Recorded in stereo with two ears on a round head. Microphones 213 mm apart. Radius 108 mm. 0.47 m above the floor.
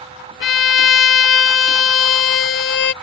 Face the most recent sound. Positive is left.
turn(degrees=50)  # may be behind; listen again after turning